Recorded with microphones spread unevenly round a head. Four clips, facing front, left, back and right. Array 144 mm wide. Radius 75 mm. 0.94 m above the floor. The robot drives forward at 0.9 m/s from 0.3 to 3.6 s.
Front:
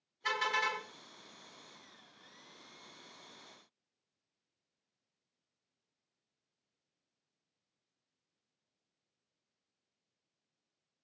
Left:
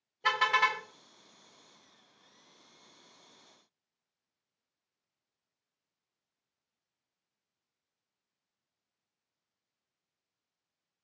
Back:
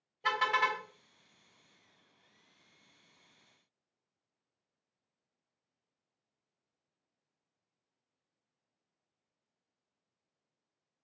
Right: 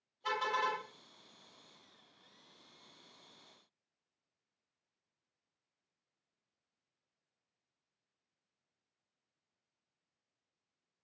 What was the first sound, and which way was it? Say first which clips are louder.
A car horn: left 6 dB, back 4 dB; 90° left.